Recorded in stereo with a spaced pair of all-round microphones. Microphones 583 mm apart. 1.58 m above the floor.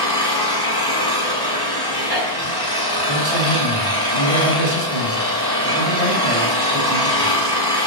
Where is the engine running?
35° left (ahead or behind), 7 m.